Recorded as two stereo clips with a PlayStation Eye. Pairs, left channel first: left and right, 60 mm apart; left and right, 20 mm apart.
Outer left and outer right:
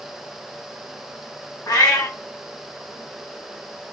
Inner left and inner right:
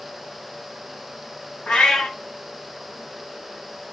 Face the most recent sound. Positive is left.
turn(degrees=70)  # may be behind; listen again after turning